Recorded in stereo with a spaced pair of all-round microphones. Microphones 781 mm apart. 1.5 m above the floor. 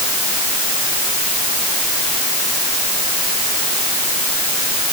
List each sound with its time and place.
Only background noise.